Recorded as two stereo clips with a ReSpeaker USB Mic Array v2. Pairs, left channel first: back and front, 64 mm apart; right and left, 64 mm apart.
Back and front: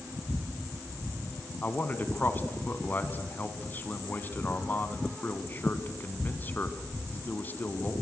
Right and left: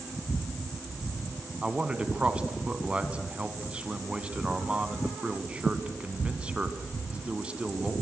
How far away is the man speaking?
About 1.8 m.